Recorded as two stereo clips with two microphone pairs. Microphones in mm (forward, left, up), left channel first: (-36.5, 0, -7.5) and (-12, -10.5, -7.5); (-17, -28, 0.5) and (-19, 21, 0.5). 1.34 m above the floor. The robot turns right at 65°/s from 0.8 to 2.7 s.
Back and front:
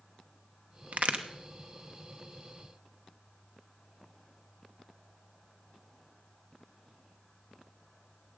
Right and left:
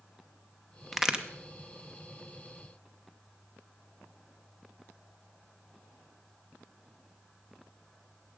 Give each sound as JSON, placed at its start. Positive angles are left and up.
{"t": 0.9, "sound": "a crack", "azimuth_deg": 0, "distance_m": 0.8}